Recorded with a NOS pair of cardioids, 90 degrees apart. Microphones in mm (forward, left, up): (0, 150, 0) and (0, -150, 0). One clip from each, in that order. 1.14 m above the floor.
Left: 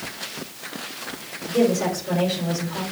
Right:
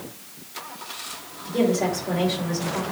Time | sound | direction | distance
1.4 | a woman speaking | 10° right | 3.5 m